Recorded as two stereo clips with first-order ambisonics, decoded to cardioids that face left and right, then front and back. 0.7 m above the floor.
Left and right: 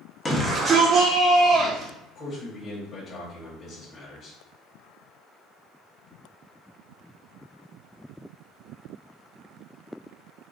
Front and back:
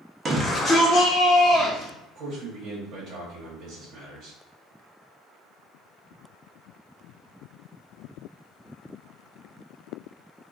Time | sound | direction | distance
0.2 | a shout | 155° left | 0.7 m
2.1 | a man speaking | 150° left | 1.2 m